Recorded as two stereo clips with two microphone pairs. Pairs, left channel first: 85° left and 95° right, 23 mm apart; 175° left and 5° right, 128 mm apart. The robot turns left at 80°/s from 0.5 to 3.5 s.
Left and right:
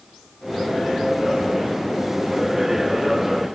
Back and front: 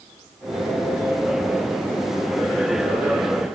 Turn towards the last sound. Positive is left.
No sound to turn to.